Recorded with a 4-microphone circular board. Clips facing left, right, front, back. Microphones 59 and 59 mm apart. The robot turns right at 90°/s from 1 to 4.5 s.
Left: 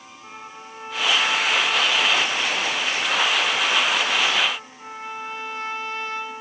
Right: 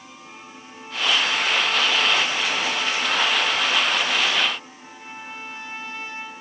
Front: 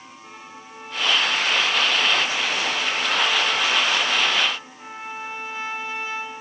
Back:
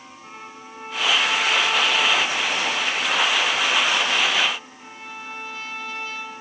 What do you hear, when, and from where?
0.2 s a trumpet: 110° left, 3 m; by 6.4 s 65° left, 3 m